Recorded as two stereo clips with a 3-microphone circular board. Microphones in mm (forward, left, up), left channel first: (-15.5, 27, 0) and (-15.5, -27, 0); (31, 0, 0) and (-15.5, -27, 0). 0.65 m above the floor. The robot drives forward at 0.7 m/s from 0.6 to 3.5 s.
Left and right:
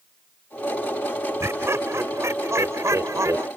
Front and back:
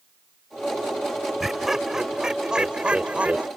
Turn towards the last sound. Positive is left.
turn(degrees=-90)